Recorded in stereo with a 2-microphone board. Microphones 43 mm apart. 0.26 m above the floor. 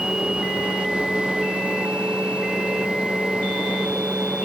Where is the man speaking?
I don't hear a man speaking.